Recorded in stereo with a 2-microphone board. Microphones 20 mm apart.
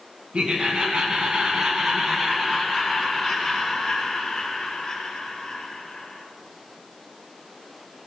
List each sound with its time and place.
0.3 s laughter: 60° right (ahead or behind), 1.7 m; by 6.2 s 20° left (ahead or behind), 3 m